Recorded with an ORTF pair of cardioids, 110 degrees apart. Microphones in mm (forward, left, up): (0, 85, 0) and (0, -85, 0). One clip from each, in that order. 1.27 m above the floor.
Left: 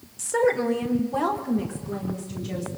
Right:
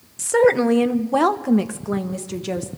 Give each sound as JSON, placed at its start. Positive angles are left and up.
{"t": 0.2, "sound": "a woman speaking", "azimuth_deg": -25, "distance_m": 0.7}